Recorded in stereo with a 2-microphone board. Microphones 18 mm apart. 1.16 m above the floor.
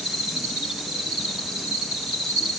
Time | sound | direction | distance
0.0 | an insect | 55° right (ahead or behind) | 3.5 m